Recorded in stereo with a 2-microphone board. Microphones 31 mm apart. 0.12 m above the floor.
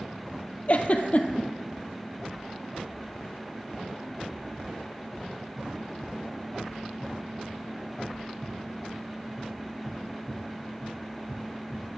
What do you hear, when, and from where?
0.7 s a giggle: 45° left (ahead or behind), 0.5 m